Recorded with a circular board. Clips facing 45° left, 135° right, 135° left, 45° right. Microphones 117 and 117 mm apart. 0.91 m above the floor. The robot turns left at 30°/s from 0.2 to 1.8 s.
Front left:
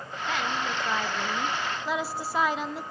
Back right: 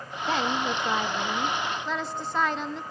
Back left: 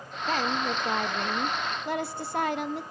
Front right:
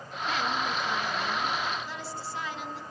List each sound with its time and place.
0.3 s a woman speaking: 175° left, 0.8 m; by 2.8 s 125° left, 0.8 m